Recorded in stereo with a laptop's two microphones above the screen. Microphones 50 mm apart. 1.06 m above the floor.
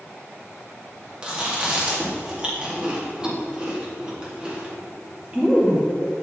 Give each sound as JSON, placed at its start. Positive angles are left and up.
{"t": 1.2, "sound": "chewing", "side_deg": -15, "distance_m": 2.5}